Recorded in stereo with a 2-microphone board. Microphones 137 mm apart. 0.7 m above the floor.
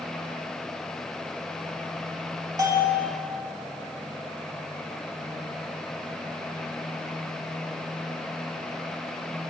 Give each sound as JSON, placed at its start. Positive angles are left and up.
{"t": 2.6, "sound": "a bell", "side_deg": -30, "distance_m": 0.7}